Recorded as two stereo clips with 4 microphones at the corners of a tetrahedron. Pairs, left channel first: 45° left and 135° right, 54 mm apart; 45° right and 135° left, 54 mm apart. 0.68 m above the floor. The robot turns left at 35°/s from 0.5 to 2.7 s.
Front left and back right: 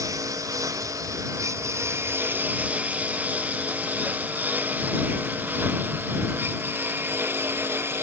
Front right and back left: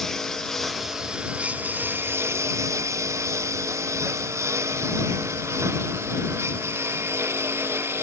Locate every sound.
0.0 s a lawn mower: 130° right; by 8.0 s straight behind